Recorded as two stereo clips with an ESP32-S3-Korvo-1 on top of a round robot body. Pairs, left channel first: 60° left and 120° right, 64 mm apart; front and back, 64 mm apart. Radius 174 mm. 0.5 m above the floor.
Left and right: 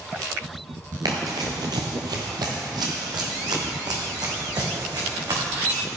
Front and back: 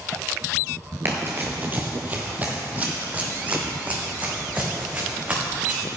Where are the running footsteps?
130° right, 0.5 m; by 5.8 s 115° right, 3.5 m.